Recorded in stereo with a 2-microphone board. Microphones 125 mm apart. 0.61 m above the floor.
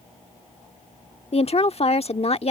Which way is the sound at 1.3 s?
55° left (ahead or behind).